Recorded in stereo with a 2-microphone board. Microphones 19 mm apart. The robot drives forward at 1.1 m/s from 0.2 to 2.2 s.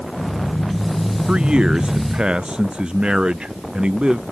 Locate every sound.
1.3 s a man speaking: 65° right (ahead or behind); by 4.2 s 60° right (ahead or behind)